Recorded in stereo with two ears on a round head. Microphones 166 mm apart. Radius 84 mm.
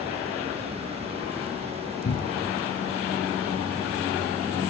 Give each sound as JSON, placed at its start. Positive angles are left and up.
{"t": 2.0, "sound": "a cupboard door", "side_deg": 50, "distance_m": 1.2}